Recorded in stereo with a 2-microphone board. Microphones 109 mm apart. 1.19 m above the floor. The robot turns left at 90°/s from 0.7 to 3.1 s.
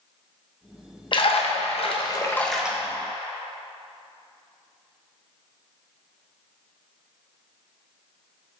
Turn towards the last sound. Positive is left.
turn(degrees=-45)